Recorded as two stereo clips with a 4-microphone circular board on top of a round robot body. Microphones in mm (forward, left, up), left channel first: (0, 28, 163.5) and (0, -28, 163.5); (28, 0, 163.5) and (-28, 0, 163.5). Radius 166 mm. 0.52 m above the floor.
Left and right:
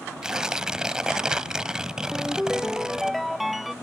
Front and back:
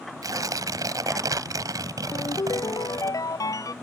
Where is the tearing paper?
170° right.